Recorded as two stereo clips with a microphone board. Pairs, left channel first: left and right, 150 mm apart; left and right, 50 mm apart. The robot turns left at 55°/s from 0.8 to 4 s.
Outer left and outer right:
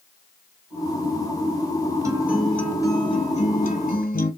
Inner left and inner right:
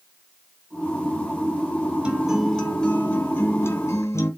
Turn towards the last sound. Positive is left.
turn(degrees=95)